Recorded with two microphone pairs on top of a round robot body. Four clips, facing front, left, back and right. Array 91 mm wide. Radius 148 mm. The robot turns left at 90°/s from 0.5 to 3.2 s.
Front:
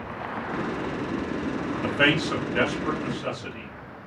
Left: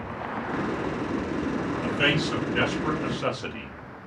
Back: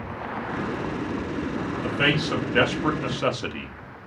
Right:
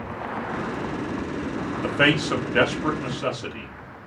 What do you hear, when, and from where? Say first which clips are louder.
1.8 s a man speaking: right 6 dB, front 2 dB; 55° right, 1.4 m; by 3.7 s straight behind, 1.4 m